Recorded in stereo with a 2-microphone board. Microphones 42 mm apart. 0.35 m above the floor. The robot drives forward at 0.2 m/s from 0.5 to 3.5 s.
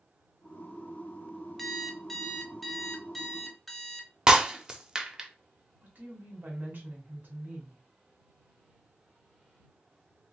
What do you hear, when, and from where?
1.6 s an alarm clock: 5° left (ahead or behind), 0.5 m
4.3 s breaking glass: 15° right (ahead or behind), 0.6 m
5.8 s a woman speaking: 50° right (ahead or behind), 2.0 m